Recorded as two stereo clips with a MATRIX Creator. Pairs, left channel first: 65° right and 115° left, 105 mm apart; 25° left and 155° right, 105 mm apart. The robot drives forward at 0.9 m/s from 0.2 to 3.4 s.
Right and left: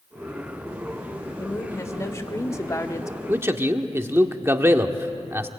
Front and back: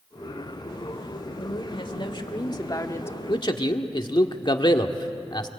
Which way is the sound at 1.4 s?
5° right.